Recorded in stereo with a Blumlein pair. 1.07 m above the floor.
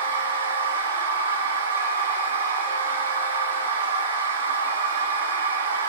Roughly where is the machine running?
Right.